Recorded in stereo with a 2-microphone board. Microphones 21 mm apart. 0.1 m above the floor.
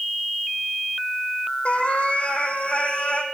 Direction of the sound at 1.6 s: 60° left (ahead or behind).